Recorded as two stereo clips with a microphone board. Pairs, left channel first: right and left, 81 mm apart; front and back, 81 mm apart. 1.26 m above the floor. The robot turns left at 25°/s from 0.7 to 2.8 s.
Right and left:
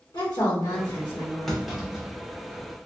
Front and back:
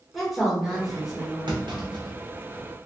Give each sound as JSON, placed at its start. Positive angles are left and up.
{"t": 0.1, "sound": "a woman speaking", "azimuth_deg": -95, "distance_m": 1.6}
{"t": 1.5, "sound": "a clunk", "azimuth_deg": -175, "distance_m": 0.9}